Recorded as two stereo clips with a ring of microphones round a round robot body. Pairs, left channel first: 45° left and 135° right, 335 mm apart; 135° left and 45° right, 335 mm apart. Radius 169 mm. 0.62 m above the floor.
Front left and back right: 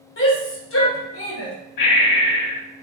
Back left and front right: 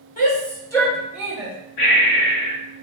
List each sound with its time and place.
0.2 s a shout: 80° left, 1.3 m; by 1.5 s 25° left, 1.3 m
1.8 s breathing: 80° left, 0.9 m